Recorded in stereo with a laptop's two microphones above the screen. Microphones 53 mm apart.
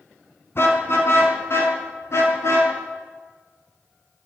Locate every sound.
0.6 s a car horn: 55° left (ahead or behind), 5 m; by 2.7 s 65° left (ahead or behind), 7 m